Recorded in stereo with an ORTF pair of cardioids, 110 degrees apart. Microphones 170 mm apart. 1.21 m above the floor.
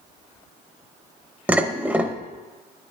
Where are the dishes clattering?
10° right, 0.6 m.